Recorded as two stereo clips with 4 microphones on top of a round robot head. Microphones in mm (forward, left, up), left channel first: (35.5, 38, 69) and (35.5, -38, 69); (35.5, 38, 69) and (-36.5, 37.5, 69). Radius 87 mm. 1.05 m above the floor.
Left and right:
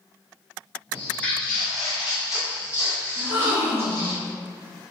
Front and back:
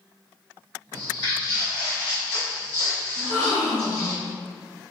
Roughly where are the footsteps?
Ahead left.